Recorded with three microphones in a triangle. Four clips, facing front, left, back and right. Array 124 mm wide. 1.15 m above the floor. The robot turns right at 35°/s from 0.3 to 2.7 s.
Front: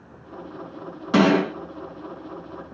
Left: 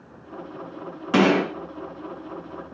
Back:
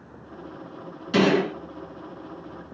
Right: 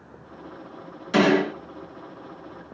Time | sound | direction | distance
1.1 | a gunshot | 35° left | 6 m